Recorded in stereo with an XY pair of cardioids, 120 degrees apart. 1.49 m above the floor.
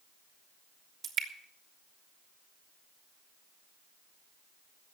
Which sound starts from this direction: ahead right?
Dripping, at 1.0 s.